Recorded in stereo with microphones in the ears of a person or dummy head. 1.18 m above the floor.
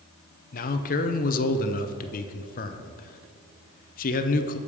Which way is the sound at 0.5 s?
40° left (ahead or behind).